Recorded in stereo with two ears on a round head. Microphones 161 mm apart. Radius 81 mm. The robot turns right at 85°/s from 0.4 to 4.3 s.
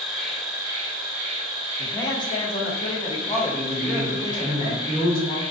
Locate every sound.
0.0 s an insect: straight behind, 1.2 m; by 5.5 s 150° left, 1.2 m
1.8 s a man speaking: 15° left, 0.6 m; by 4.7 s 130° right, 0.6 m
3.7 s a man speaking: 100° left, 1.3 m; by 5.4 s 150° left, 1.3 m